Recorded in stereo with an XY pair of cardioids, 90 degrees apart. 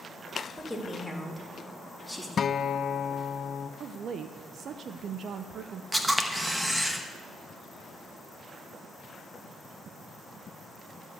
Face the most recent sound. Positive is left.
turn(degrees=-10)